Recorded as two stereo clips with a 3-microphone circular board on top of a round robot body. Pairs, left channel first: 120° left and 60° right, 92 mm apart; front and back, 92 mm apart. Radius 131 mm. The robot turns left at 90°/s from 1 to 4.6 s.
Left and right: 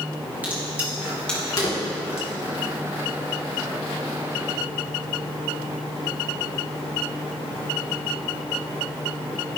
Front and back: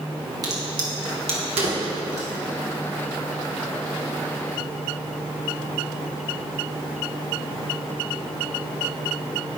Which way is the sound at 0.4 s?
135° right.